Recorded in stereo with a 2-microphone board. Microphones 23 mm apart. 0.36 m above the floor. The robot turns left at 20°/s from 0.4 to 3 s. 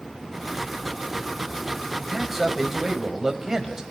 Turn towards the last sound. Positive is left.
turn(degrees=-20)  # may be behind; listen again after turning